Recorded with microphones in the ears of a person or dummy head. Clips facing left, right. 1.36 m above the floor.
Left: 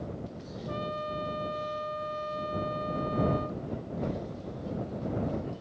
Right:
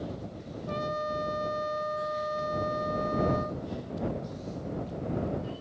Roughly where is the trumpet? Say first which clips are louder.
Right 3 dB; right.